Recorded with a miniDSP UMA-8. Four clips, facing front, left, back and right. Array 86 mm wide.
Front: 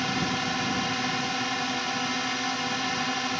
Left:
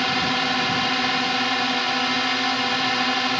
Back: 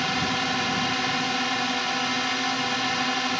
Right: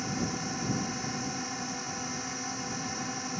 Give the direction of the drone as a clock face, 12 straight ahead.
9 o'clock.